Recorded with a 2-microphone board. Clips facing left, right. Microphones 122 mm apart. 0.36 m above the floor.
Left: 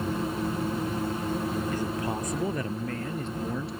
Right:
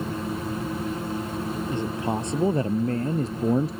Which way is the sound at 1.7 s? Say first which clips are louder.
Right 3 dB; 25° right (ahead or behind).